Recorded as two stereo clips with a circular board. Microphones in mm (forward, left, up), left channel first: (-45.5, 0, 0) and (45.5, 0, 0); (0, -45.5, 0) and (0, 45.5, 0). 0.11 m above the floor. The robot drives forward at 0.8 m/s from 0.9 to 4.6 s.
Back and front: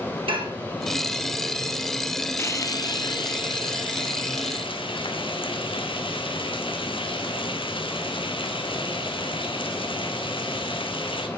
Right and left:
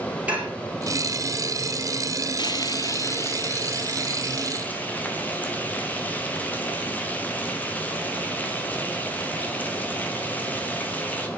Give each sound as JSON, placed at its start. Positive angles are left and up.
{"t": 0.3, "sound": "dishes clattering", "azimuth_deg": 15, "distance_m": 4.5}
{"t": 2.4, "sound": "frying", "azimuth_deg": -120, "distance_m": 0.8}